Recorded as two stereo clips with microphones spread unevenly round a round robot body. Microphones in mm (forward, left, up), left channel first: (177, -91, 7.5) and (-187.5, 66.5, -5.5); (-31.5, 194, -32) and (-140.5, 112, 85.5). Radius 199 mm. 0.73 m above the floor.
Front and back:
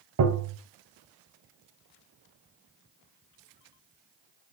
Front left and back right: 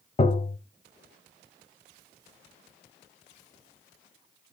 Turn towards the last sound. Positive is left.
turn(degrees=125)